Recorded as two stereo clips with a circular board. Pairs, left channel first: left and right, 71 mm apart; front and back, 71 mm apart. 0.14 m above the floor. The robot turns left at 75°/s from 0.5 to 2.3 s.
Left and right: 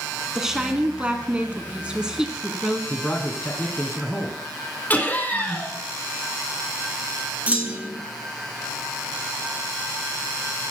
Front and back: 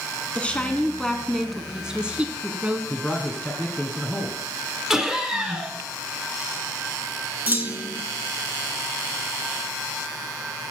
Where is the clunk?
140° right, 1.3 m.